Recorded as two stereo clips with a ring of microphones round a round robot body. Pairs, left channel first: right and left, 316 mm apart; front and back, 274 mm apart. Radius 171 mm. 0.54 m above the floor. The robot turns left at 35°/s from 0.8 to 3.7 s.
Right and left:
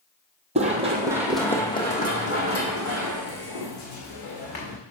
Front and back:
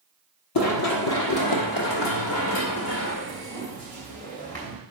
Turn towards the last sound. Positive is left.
turn(degrees=-85)